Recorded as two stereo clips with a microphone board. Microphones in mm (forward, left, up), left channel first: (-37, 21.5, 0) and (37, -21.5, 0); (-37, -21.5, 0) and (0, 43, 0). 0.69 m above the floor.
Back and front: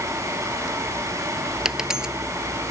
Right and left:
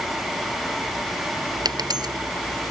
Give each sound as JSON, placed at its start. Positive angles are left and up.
{"t": 1.6, "sound": "a dropped coin", "azimuth_deg": 55}